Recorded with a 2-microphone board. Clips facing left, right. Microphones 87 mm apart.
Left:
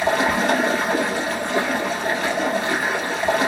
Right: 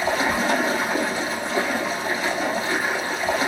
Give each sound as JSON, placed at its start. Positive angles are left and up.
{"t": 0.0, "sound": "running water", "side_deg": 65, "distance_m": 1.5}